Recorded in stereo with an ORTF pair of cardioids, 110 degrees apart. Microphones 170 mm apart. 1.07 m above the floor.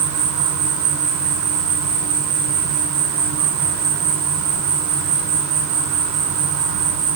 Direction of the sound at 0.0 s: 65° right.